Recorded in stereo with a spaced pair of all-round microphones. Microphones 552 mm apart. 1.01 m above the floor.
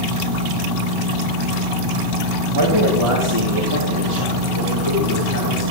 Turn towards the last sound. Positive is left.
turn(degrees=-50)  # may be behind; listen again after turning